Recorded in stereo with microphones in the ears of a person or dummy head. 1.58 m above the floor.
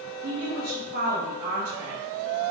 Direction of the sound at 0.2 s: 60° right (ahead or behind).